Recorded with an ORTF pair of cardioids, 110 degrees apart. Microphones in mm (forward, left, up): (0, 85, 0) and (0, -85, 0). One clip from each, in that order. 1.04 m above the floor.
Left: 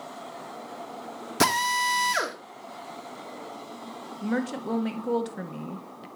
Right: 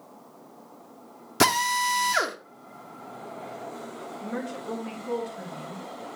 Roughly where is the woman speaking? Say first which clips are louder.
Left 5 dB; ahead left.